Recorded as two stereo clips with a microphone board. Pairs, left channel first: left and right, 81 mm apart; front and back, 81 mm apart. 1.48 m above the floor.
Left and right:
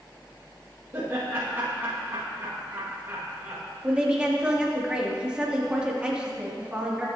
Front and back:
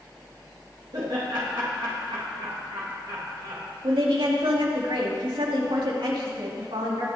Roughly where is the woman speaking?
Behind.